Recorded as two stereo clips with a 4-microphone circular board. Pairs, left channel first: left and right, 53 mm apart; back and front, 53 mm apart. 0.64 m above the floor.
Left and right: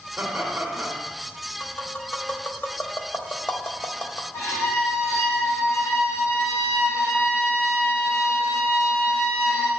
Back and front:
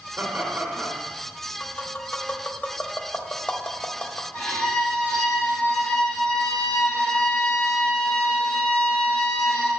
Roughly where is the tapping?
Behind left.